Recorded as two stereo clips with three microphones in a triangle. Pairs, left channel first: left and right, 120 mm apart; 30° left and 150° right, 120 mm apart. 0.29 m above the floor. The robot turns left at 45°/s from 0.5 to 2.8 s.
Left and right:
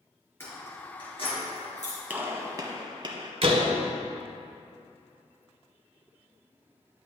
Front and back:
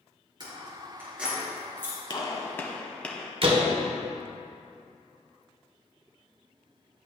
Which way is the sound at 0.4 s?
160° left.